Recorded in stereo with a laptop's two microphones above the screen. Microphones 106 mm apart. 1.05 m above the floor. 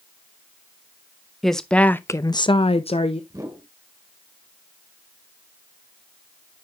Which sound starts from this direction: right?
A whoosh, at 3.3 s.